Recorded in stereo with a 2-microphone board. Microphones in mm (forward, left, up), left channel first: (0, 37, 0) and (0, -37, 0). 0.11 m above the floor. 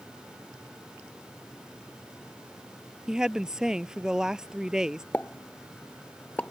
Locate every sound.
3.1 s a woman speaking: 10° right (ahead or behind)
5.1 s a pop: 20° left (ahead or behind)